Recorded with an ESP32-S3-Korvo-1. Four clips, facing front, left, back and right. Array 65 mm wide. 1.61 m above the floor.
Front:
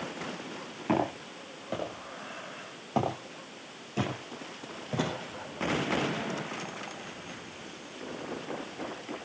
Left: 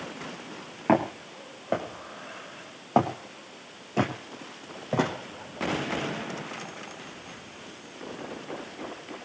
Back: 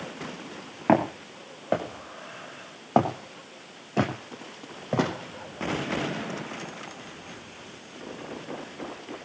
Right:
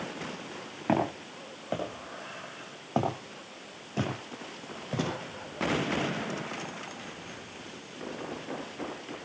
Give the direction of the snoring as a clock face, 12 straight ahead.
I don't hear snoring.